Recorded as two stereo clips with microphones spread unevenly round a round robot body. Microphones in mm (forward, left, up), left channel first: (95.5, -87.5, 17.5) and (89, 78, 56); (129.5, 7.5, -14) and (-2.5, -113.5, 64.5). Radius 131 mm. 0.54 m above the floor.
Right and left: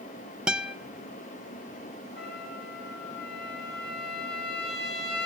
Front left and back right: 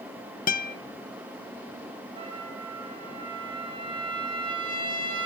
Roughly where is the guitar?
Ahead.